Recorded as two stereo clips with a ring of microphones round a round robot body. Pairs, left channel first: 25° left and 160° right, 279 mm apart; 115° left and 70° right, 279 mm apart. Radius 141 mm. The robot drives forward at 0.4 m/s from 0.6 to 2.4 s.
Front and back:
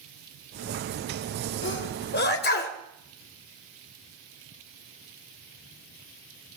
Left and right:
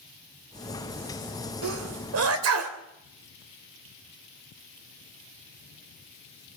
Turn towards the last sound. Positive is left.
turn(degrees=-30)